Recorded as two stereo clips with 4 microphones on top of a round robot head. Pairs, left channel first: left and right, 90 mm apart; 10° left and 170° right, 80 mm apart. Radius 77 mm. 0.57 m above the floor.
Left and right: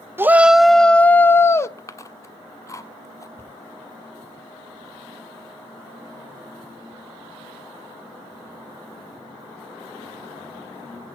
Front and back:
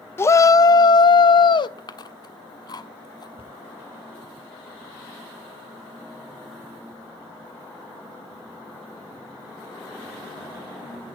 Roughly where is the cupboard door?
Ahead left.